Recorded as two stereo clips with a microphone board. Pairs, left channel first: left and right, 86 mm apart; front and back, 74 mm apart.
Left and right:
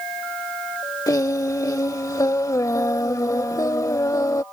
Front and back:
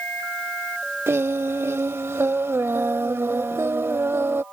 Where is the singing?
130° left.